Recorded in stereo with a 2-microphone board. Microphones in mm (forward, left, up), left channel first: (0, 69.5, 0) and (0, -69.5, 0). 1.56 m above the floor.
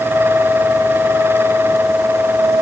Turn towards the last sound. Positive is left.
No sound to turn to.